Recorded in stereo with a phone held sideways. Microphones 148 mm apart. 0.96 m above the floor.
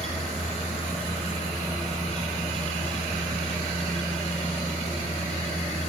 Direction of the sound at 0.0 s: 50° left (ahead or behind).